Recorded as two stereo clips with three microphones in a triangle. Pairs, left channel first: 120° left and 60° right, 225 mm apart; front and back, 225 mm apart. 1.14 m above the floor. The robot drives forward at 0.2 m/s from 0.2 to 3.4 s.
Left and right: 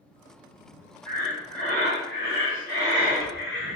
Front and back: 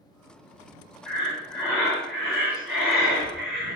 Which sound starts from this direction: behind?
Breathing, at 1.1 s.